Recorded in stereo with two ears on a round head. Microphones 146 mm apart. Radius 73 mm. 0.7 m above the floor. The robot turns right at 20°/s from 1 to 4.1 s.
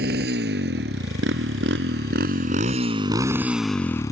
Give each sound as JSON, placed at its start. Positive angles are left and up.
{"t": 0.0, "sound": "a motorcycle", "side_deg": -65}